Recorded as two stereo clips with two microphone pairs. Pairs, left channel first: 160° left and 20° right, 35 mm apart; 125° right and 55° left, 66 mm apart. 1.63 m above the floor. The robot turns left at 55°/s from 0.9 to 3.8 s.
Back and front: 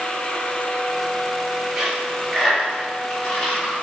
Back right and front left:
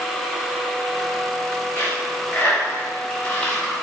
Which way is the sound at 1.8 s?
90° right.